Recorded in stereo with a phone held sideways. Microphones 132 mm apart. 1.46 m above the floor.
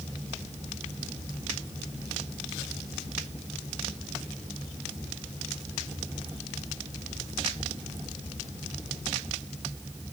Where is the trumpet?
No trumpet in this recording.